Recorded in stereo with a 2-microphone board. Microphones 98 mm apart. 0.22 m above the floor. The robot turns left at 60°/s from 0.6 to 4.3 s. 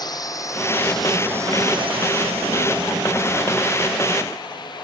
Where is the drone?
45° left (ahead or behind); by 4.8 s 50° left (ahead or behind).